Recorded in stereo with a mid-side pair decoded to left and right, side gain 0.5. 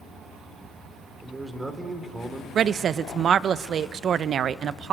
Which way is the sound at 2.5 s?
55° right.